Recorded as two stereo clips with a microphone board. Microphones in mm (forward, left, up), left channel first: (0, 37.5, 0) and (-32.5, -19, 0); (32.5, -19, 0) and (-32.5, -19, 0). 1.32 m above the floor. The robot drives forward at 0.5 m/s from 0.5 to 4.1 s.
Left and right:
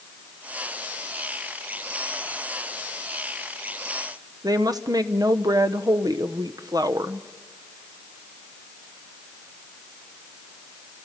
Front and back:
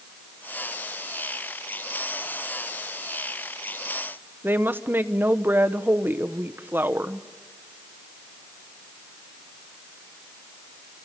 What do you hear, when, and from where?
4.4 s a woman speaking: 125° right, 1.0 m